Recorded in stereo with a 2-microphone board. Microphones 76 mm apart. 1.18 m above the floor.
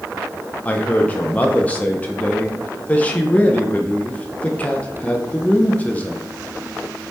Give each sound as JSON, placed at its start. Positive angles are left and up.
{"t": 0.7, "sound": "a man speaking", "side_deg": 20, "distance_m": 0.5}